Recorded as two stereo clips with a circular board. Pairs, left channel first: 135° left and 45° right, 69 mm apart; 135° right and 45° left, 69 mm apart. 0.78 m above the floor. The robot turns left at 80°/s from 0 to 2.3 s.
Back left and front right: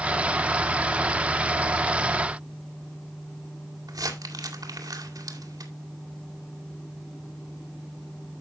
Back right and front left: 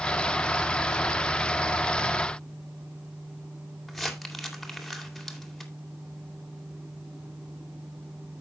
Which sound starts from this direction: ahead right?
Crumpling, at 3.9 s.